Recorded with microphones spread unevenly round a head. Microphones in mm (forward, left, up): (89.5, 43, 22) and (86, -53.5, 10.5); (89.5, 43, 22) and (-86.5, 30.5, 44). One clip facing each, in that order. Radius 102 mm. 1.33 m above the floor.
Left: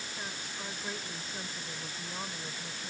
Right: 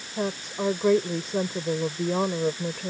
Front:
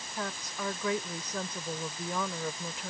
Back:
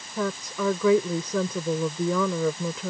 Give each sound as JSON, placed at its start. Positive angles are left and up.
{"t": 0.2, "sound": "a woman speaking", "azimuth_deg": -145}